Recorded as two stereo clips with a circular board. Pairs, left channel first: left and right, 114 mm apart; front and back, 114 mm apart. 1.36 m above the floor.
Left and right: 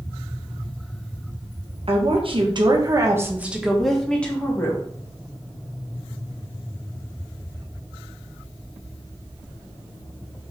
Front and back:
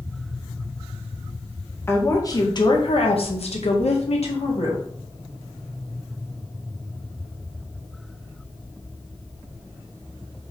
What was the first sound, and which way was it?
A woman speaking, 65° right.